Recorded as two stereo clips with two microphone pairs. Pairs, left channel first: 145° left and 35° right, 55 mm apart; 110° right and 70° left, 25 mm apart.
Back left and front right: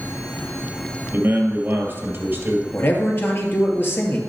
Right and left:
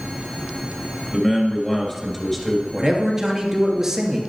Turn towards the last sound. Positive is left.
turn(degrees=145)